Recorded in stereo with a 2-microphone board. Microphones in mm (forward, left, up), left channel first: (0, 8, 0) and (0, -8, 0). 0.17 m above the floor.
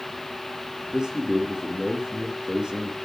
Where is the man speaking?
70° right (ahead or behind), 3.5 m.